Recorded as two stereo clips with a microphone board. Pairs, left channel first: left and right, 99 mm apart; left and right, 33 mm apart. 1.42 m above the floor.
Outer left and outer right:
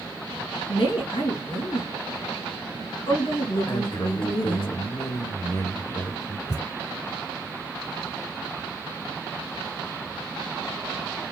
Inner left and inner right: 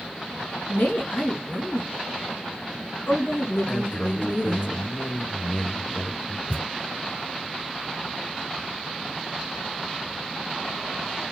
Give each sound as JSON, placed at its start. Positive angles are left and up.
{"t": 0.7, "sound": "a woman speaking", "side_deg": 75, "distance_m": 2.5}
{"t": 3.7, "sound": "a man speaking", "side_deg": 50, "distance_m": 1.8}
{"t": 6.5, "sound": "a thud", "side_deg": 50, "distance_m": 3.5}